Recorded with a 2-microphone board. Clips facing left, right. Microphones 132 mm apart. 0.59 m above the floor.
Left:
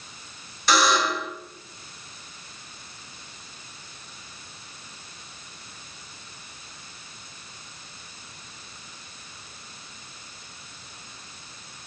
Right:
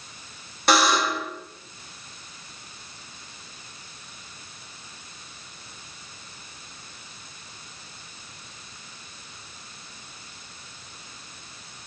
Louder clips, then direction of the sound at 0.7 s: Right 1 dB; 60° right (ahead or behind).